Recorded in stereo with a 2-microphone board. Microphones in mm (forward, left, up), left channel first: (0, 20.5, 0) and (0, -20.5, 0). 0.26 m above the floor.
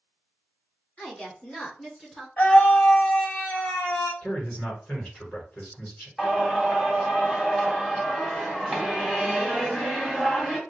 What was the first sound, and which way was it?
A woman speaking, 30° left (ahead or behind).